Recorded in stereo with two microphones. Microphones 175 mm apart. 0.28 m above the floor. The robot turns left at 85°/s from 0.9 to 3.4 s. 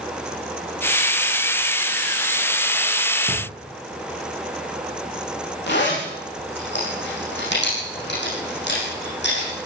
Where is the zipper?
75° left (ahead or behind), 10 m.